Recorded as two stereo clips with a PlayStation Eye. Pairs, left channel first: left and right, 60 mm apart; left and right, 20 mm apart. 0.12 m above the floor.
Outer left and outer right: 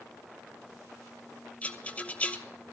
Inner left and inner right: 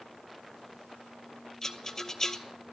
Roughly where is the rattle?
Left.